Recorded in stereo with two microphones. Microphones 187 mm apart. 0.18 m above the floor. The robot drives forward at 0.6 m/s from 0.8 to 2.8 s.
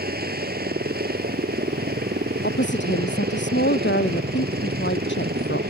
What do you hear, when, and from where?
0.0 s a helicopter: 55° right (ahead or behind)
2.4 s a woman speaking: 75° left (ahead or behind); by 5.6 s 80° left